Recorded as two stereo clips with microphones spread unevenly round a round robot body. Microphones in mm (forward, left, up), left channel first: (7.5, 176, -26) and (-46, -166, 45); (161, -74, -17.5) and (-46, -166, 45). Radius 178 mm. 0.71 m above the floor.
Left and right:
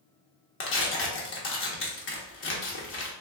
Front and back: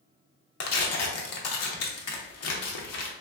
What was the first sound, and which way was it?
Tearing paper, 25° left.